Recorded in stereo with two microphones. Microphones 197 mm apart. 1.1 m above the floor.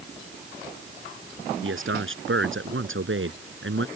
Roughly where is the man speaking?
Right.